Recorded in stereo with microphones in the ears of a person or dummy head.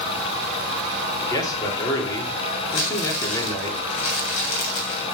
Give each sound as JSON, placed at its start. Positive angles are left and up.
{"t": 1.2, "sound": "a man speaking", "side_deg": 25, "distance_m": 3.0}
{"t": 2.7, "sound": "crumpling", "side_deg": 60, "distance_m": 2.5}